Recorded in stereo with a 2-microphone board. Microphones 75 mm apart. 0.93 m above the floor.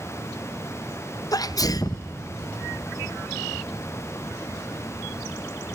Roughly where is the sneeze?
Left.